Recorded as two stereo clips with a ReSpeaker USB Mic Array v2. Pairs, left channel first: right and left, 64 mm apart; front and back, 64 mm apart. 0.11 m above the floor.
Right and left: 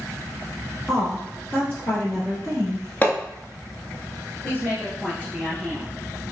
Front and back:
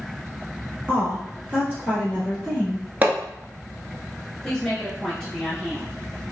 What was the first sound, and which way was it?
A woman speaking, 160° right.